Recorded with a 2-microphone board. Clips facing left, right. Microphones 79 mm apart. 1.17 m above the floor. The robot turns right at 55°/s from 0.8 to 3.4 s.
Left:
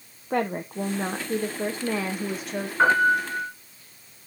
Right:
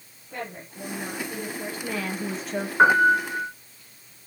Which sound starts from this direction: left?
A woman speaking, at 0.3 s.